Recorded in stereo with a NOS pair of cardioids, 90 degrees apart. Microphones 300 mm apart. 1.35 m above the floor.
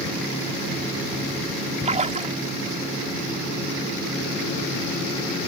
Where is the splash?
25° right.